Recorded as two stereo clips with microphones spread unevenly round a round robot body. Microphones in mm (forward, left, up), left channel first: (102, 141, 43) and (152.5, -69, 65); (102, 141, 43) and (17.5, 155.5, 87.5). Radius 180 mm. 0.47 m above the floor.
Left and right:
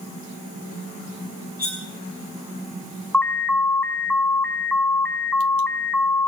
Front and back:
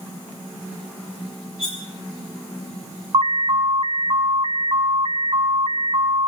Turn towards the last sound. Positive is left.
turn(degrees=175)